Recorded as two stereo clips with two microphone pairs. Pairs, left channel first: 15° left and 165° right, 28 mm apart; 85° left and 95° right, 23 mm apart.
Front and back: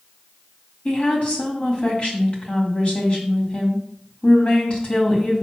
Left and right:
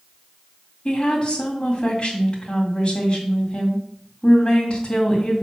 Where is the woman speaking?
50° left, 2 m.